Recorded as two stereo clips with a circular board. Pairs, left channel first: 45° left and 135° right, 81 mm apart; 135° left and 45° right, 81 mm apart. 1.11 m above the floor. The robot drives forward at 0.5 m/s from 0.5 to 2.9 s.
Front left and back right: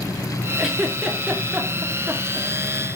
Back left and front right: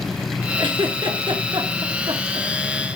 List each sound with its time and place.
0.6 s a giggle: 50° right, 3.5 m; by 2.5 s 65° right, 3 m